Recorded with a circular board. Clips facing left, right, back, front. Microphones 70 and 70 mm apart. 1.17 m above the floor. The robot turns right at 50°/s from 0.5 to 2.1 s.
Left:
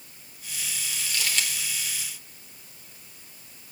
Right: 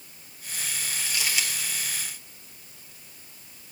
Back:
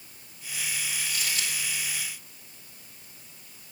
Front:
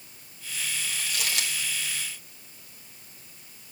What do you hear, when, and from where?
1.0 s crumpling: 30° right, 1.3 m; by 1.7 s 5° left, 1.3 m